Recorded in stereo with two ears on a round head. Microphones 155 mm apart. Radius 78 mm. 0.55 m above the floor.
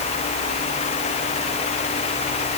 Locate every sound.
Only background noise.